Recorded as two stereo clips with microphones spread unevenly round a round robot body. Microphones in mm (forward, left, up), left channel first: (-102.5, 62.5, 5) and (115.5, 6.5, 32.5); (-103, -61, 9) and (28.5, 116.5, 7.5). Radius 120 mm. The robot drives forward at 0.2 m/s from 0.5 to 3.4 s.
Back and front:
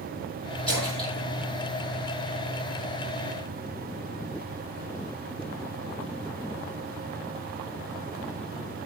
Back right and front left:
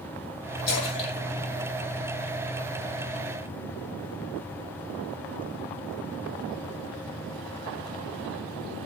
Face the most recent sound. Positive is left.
turn(degrees=-115)